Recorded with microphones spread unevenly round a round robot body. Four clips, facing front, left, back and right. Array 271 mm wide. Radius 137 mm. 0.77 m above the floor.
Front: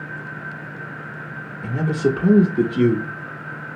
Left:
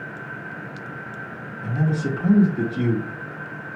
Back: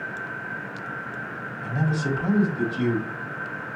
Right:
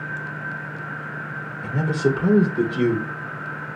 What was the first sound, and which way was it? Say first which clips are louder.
A man speaking: right 3 dB, front 6 dB; 5° left.